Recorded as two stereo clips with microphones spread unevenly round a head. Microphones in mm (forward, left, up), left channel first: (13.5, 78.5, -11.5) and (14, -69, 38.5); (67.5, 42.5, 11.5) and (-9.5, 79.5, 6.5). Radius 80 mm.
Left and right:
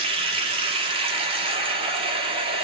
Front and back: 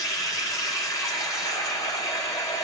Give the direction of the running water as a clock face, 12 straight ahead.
3 o'clock.